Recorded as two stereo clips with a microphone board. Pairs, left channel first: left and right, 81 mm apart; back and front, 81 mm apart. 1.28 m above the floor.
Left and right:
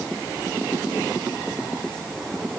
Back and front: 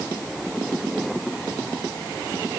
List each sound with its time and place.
Only background noise.